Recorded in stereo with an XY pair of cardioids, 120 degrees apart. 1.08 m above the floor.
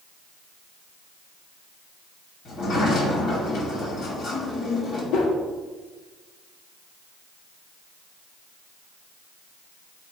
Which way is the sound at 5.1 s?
60° left.